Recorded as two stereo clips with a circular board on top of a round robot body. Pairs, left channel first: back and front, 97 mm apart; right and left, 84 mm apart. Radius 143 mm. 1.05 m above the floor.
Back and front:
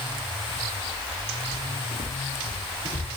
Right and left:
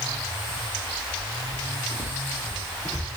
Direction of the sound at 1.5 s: Straight ahead.